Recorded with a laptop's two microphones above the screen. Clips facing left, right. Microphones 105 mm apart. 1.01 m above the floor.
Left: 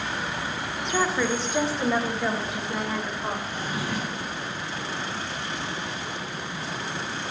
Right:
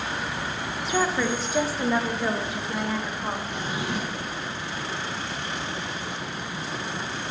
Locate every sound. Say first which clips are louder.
0.8 s a woman speaking: even; centre (ahead or behind), 1.0 m
3.5 s a drawer: right 1 dB; 20° right (ahead or behind), 1.3 m